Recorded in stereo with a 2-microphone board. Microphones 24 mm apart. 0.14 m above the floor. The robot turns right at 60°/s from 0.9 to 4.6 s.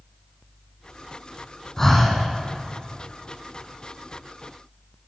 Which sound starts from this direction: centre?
Breathing, at 1.8 s.